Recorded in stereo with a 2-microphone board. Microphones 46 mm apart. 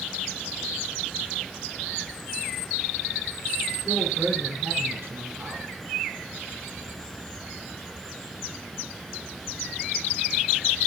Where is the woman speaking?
65° right (ahead or behind), 3.5 m.